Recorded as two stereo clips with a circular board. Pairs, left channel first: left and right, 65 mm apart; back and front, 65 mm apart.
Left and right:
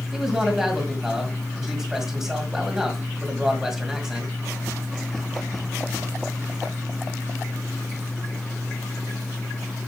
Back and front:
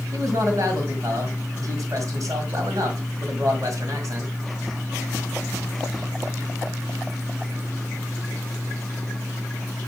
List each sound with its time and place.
0.1 s a man speaking: 10° right, 1.9 m